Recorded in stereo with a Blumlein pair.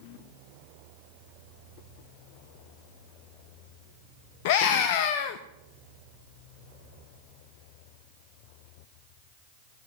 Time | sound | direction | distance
4.5 | a scream | 50° left | 0.7 m